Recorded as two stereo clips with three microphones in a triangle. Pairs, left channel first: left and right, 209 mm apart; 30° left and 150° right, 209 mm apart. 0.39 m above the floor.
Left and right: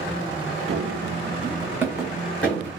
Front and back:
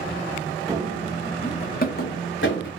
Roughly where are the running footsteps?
Right.